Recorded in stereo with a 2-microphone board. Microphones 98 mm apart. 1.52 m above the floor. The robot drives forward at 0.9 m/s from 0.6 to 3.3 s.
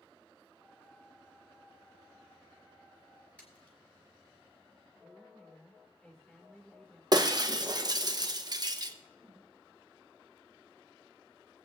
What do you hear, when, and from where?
3.4 s a splash: 15° left (ahead or behind), 4 m
5.0 s a woman speaking: 10° left (ahead or behind), 2 m
7.1 s breaking glass: 40° right (ahead or behind), 0.9 m
9.2 s a whoosh: 10° right (ahead or behind), 4 m